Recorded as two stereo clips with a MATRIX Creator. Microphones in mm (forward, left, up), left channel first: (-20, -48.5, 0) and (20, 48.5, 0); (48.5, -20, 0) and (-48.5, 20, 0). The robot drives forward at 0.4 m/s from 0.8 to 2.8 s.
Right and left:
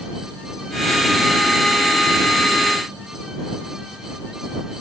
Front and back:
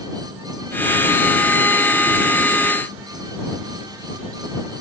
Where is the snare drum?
No snare drum in this recording.